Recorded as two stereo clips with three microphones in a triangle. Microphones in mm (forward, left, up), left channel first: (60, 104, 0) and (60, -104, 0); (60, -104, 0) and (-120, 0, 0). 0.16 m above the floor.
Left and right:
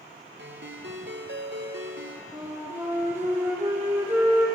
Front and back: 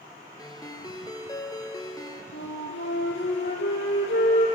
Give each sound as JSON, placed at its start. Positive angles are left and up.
{"t": 0.4, "sound": "a ringtone", "azimuth_deg": -100, "distance_m": 1.4}
{"t": 2.3, "sound": "a flute", "azimuth_deg": -10, "distance_m": 2.0}